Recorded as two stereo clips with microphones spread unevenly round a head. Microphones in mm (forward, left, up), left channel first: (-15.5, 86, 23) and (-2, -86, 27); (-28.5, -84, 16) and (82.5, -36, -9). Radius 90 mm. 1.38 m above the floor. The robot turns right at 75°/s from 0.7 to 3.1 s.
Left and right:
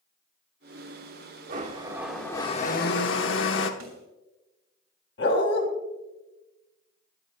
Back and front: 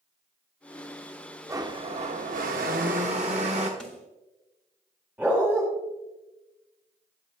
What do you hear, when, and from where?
1.5 s a blender: 45° right, 1.1 m; by 3.7 s 80° left, 1.1 m
3.8 s a snare drum: 75° right, 3 m
5.2 s a dog barking: 110° left, 2 m